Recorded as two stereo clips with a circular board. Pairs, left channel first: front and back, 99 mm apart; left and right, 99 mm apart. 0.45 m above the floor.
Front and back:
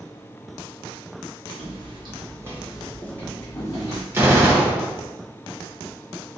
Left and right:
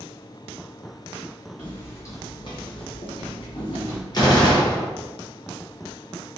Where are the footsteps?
165° left, 1.1 m; by 4.0 s 50° left, 1.4 m.